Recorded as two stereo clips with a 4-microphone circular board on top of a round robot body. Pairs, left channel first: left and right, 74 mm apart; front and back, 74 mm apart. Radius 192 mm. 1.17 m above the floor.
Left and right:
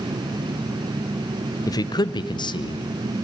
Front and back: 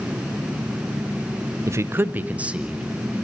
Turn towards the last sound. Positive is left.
turn(degrees=100)